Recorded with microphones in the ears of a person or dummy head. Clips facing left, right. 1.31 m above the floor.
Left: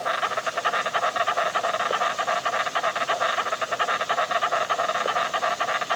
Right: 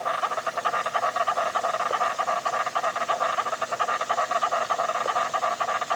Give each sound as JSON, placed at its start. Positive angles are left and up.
{"t": 0.0, "sound": "an insect", "side_deg": 15, "distance_m": 0.9}